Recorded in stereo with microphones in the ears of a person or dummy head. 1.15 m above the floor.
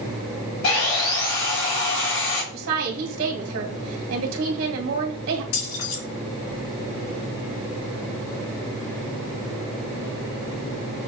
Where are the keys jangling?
75° left (ahead or behind), 3 m.